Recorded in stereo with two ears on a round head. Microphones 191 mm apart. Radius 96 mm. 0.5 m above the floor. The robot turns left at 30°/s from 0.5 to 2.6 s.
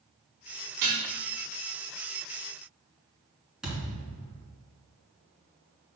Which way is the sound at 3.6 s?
5° right (ahead or behind).